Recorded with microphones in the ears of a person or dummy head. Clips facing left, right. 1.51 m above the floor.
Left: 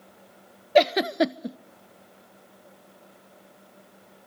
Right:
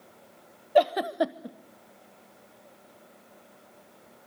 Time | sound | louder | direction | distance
0.8 | a giggle | left 3 dB | 35° left (ahead or behind) | 0.8 m